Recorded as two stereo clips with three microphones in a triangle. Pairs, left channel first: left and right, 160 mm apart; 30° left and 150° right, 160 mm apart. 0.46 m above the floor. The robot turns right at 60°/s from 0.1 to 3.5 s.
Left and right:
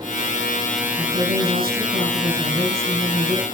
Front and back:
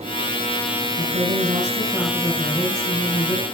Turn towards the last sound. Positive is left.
turn(degrees=30)